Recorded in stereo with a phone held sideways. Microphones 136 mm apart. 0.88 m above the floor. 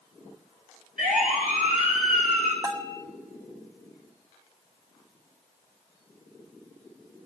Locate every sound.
1.0 s a siren: 75° right (ahead or behind), 10 m; by 2.5 s 70° right (ahead or behind), 9 m
2.6 s a bell: 35° right (ahead or behind), 1.4 m